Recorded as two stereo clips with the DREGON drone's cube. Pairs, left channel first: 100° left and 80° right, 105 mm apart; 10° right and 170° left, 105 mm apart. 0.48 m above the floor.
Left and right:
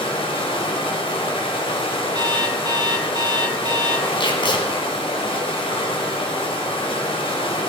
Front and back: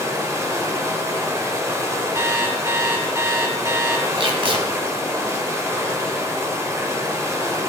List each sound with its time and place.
0.0 s running water: 110° left, 1.9 m
2.1 s an alarm clock: 125° right, 1.7 m
4.2 s tape being pulled: 140° left, 1.9 m